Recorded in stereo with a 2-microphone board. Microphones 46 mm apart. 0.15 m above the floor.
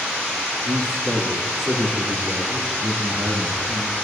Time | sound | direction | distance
0.7 | a man speaking | 75° right (ahead or behind) | 4.5 m